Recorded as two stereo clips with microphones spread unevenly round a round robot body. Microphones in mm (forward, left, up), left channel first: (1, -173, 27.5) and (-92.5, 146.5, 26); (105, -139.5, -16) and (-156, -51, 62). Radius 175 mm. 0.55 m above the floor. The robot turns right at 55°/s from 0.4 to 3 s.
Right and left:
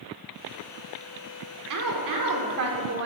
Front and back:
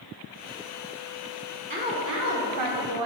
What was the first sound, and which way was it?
A woman speaking, 85° left.